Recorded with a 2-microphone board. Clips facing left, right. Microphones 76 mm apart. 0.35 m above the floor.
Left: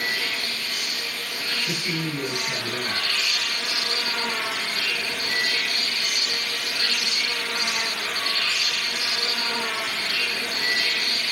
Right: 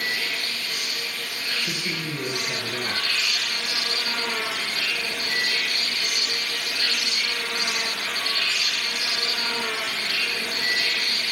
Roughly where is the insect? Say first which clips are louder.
Left 1 dB; left.